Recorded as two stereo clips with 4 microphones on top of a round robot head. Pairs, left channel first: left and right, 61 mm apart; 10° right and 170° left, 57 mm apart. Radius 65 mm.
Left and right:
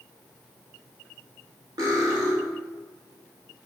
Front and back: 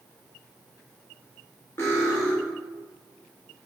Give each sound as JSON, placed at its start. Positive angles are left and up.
{"t": 1.8, "sound": "cutlery clinking", "azimuth_deg": -65, "distance_m": 1.0}